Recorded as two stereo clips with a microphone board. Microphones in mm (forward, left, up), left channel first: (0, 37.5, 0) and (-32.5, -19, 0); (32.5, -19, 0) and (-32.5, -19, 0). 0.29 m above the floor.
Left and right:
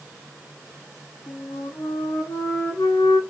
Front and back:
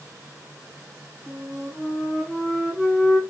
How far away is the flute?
About 9.5 m.